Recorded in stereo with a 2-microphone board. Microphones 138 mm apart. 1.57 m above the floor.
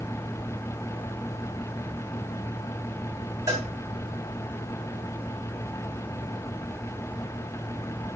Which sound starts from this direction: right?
A cowbell, at 3.5 s.